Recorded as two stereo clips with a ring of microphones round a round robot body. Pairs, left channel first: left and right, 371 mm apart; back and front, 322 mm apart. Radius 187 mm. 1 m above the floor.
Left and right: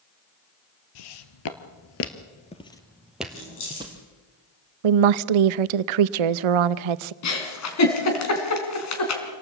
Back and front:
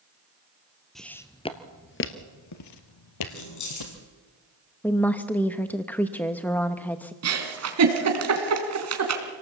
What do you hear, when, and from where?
0.9 s footsteps: 90° left, 1.8 m; by 4.0 s 165° right, 2.5 m
3.3 s keys jangling: 150° left, 8 m
4.8 s a woman speaking: 95° right, 0.7 m
7.2 s a giggle: 40° left, 3.5 m